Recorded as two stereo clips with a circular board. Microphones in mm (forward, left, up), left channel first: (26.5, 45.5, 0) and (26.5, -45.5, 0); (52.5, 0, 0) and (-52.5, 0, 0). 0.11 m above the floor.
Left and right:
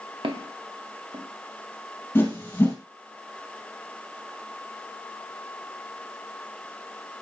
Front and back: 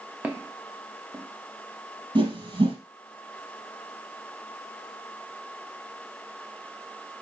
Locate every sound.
0.2 s footsteps: 105° right, 1.6 m; by 2.0 s 120° right, 3 m
2.1 s a whoosh: 150° left, 2.5 m